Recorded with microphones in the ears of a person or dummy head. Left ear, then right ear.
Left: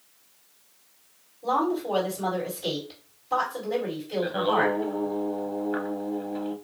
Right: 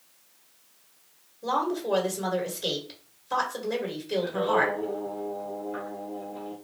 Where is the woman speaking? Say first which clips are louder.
Left 2 dB; 55° right (ahead or behind), 1.9 m.